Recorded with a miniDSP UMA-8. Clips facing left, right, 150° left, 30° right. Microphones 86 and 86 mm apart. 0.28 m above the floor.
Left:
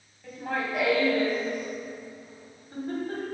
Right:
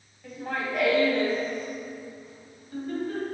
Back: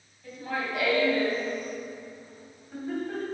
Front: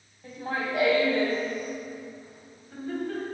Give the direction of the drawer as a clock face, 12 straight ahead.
No drawer in this recording.